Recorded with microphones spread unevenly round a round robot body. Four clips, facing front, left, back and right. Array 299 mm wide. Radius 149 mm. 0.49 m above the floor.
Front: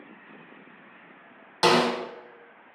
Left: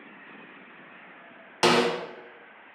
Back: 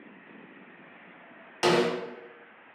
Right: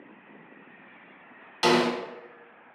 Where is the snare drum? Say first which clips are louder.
Left 1 dB, front 3 dB; 55° left, 0.8 m.